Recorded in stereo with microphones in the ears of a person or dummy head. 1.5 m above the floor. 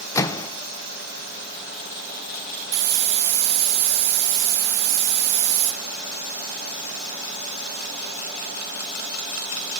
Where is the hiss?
55° right (ahead or behind), 1.3 m.